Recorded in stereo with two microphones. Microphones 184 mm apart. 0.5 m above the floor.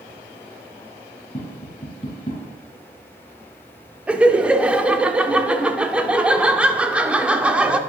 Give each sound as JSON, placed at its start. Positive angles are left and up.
{"t": 1.3, "sound": "tapping", "side_deg": 35, "distance_m": 3.5}
{"t": 4.1, "sound": "laughter", "side_deg": -5, "distance_m": 0.8}